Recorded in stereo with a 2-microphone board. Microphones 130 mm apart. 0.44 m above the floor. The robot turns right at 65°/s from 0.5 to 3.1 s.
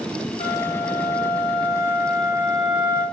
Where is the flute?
65° left, 0.5 m; by 3.0 s 130° right, 0.5 m.